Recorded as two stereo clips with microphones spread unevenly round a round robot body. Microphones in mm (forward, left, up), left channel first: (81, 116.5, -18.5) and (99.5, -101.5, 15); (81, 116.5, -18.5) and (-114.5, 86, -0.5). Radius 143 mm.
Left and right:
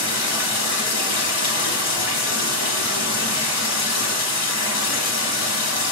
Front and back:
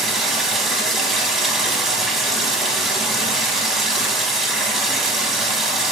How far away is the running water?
About 0.9 m.